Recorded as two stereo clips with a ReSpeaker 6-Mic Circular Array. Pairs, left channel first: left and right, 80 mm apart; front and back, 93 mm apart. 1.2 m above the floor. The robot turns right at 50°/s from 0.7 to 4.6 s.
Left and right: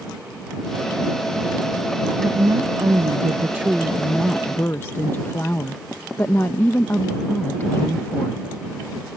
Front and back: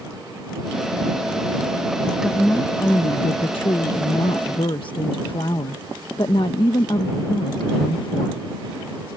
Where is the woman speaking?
90° right; by 8.4 s 30° left.